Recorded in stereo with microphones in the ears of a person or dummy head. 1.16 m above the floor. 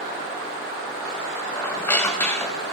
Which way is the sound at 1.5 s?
10° left (ahead or behind).